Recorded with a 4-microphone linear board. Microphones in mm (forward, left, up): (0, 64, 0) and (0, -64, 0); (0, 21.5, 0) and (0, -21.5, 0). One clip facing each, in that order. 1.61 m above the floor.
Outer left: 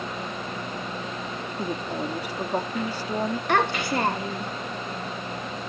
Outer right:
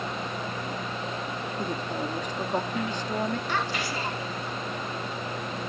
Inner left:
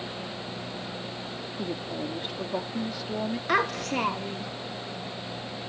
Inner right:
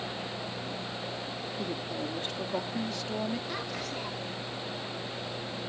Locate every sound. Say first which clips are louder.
1.6 s a woman speaking: outer left 3 dB, inner left 3 dB; 10° left (ahead or behind)
3.5 s a child speaking: outer left 6 dB, inner left 10 dB; 60° left (ahead or behind)